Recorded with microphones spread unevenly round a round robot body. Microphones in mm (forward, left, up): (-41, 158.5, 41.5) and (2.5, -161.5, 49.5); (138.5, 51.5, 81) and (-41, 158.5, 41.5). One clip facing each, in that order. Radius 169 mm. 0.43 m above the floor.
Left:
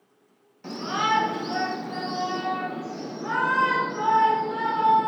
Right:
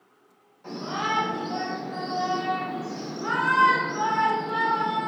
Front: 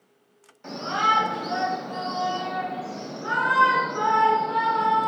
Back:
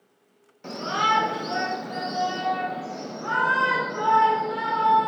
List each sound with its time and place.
0.6 s a shout: 115° left, 1.3 m; by 5.1 s 95° right, 1.5 m